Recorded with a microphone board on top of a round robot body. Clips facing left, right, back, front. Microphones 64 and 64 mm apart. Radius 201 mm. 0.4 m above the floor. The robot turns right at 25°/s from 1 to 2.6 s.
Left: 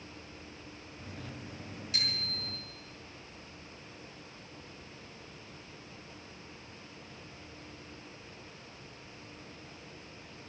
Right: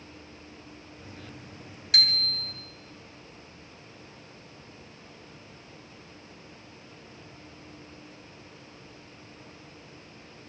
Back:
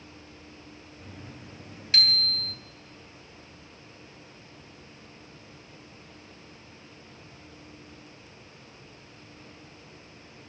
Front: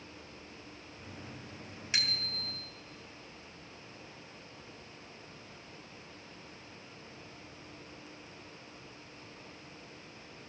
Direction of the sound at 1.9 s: 75° right.